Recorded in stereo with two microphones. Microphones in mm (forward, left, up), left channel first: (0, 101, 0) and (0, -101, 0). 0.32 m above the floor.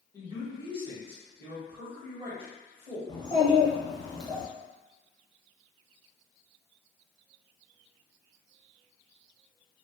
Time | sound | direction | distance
0.1 | a man speaking | 25° right (ahead or behind) | 1.0 m
3.1 | a child speaking | 20° left (ahead or behind) | 0.9 m